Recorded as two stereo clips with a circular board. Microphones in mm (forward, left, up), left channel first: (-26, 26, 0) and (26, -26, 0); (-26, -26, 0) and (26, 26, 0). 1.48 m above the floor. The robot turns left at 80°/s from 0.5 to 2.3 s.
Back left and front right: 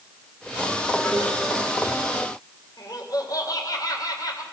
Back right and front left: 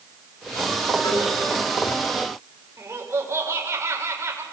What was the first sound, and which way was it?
A cowbell, 140° right.